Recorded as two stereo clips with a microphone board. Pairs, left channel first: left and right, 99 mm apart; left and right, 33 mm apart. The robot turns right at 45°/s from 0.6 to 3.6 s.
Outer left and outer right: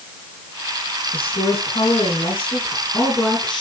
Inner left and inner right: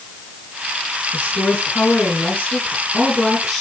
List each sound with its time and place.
1.1 s a woman speaking: 70° left, 5 m; by 3.6 s straight behind, 5 m